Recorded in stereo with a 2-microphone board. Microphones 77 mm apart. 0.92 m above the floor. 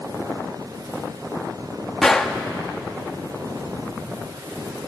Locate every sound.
2.0 s a gunshot: 5° left (ahead or behind), 1.1 m